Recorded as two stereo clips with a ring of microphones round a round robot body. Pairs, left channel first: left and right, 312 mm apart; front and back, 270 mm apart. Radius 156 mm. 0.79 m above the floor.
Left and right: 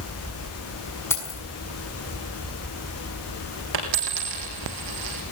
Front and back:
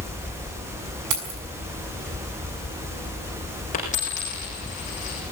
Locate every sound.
1.1 s keys jangling: 170° left, 6 m
3.7 s a dropped coin: 70° right, 6 m